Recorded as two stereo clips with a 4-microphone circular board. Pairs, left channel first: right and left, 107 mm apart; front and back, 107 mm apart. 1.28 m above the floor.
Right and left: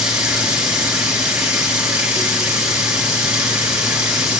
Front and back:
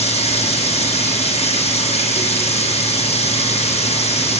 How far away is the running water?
About 7.5 m.